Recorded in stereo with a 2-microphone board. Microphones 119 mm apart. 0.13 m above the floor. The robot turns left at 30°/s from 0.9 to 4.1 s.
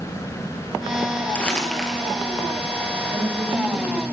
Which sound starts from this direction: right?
A woman speaking, at 3.1 s.